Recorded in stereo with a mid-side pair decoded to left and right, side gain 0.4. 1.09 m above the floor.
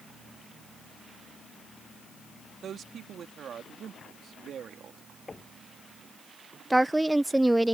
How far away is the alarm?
I don't hear an alarm.